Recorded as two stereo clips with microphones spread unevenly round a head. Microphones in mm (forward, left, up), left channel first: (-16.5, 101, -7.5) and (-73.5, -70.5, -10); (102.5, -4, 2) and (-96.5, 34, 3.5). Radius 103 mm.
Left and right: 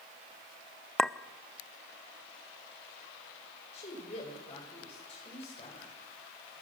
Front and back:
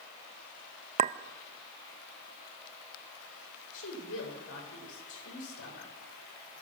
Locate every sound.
1.0 s a clink: 155° left, 0.7 m
3.7 s a woman speaking: 10° left, 7 m